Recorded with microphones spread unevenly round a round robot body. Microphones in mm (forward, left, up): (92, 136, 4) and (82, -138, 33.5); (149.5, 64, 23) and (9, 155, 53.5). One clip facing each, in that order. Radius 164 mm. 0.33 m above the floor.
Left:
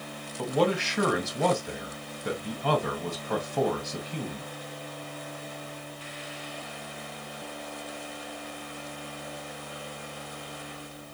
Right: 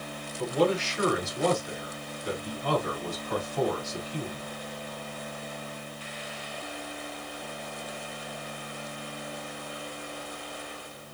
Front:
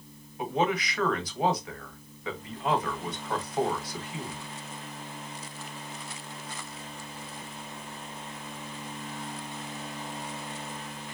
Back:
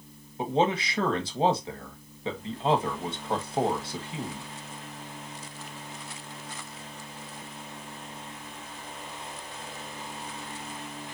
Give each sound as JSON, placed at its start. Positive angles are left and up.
{"t": 0.4, "sound": "a man speaking", "azimuth_deg": 80, "distance_m": 1.9}